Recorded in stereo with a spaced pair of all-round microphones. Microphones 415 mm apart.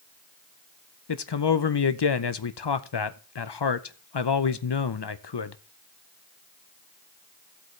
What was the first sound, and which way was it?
A man speaking, 70° left (ahead or behind).